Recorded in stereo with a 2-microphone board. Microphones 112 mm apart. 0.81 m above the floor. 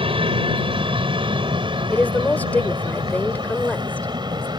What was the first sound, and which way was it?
An aircraft, 55° right (ahead or behind).